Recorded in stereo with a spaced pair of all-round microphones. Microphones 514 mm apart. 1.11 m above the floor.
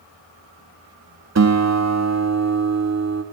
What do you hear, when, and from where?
1.4 s a guitar: 30° right (ahead or behind), 0.5 m